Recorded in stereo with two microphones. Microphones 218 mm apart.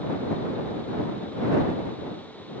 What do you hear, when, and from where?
Only background noise.